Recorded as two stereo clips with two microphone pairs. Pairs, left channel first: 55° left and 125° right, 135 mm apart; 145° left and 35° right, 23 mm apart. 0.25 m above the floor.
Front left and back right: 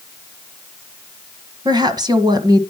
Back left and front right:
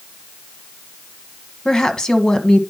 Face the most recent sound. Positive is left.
turn(degrees=-175)